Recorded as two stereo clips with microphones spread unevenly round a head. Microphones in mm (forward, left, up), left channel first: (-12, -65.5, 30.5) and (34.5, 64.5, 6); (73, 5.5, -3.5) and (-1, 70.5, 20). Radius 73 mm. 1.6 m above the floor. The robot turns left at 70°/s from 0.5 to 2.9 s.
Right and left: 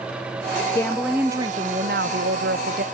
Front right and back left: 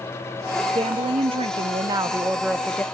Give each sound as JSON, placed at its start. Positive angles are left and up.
{"t": 0.8, "sound": "a woman speaking", "azimuth_deg": -175, "distance_m": 0.6}